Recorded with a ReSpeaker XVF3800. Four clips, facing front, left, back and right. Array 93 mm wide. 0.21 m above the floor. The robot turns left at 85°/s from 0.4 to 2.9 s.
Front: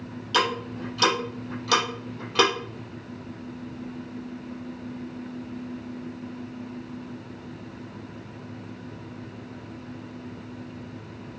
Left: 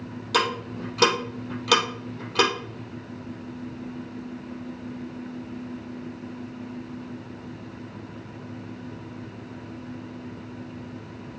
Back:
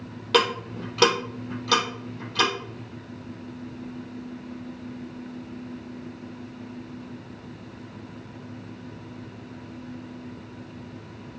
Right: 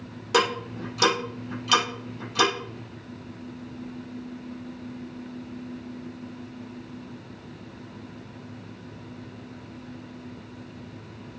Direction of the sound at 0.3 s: 160° right.